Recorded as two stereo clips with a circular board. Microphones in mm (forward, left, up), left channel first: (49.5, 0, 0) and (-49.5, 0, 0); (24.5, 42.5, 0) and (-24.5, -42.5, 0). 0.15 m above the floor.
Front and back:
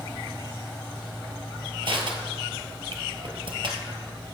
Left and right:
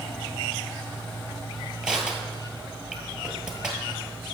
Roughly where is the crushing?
Behind.